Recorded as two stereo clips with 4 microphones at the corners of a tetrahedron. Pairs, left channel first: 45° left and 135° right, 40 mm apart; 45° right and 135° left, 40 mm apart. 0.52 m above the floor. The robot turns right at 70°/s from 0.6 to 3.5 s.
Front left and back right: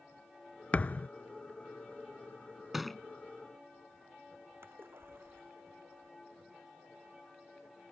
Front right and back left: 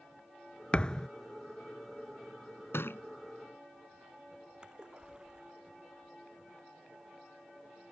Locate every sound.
0.7 s a thud: 10° left; by 1.1 s 35° left
2.7 s a thud: 55° right; by 3.0 s 35° right
4.6 s a splash: 155° right